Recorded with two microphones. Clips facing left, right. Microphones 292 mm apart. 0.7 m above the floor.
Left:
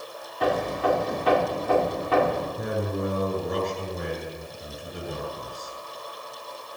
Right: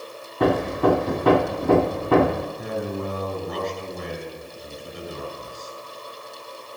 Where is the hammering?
65° right (ahead or behind), 1.6 m.